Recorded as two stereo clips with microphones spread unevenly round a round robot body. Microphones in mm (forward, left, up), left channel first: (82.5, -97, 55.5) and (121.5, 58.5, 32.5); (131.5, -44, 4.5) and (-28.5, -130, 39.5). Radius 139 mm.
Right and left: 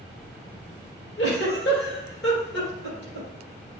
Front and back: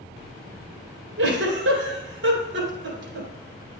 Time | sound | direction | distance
1.2 | a giggle | 145° right | 1.9 m